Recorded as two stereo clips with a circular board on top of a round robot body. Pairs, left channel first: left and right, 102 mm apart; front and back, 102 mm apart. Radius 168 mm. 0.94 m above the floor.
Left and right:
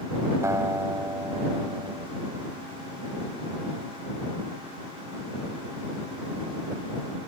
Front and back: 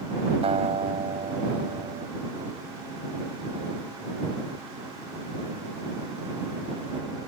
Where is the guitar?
155° right.